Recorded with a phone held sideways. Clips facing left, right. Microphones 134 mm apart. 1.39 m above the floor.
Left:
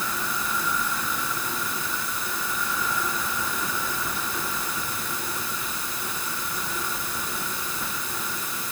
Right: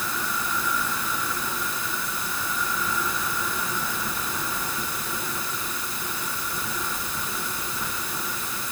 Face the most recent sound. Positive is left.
No sound to turn to.